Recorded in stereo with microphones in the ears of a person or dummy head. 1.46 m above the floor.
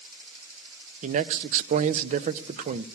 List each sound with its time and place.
1.0 s a man speaking: 40° right (ahead or behind), 0.5 m